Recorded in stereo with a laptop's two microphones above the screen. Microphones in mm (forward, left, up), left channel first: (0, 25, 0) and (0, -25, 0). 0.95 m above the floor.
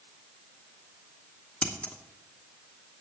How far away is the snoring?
No snoring in this recording.